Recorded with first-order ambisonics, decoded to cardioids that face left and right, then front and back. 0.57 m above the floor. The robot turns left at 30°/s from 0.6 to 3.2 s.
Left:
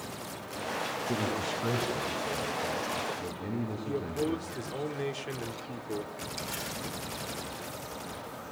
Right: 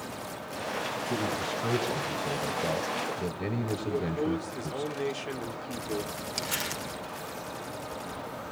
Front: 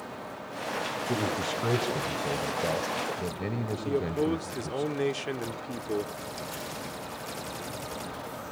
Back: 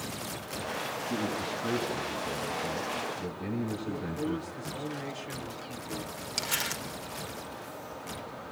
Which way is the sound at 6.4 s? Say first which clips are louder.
Right 6 dB, back 5 dB; 140° right.